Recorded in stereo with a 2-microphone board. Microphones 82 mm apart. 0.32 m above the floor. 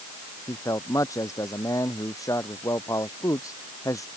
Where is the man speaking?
45° left (ahead or behind).